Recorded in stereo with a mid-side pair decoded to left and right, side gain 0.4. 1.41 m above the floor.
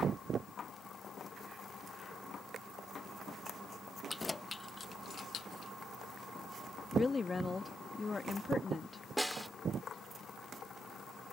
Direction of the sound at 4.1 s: 20° left.